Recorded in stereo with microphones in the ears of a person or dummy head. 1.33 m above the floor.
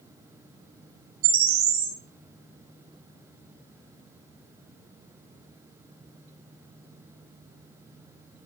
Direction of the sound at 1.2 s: 50° right (ahead or behind).